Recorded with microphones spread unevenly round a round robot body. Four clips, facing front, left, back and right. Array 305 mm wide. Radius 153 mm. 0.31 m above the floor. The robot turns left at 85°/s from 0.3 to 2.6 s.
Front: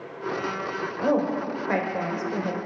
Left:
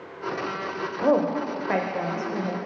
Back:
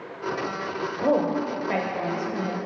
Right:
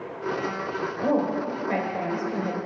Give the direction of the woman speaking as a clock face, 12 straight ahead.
8 o'clock.